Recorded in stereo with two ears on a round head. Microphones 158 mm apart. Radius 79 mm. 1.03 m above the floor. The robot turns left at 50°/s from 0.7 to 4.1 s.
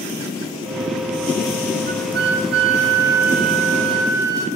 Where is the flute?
50° right, 1.5 m; by 4.5 s 160° right, 1.5 m.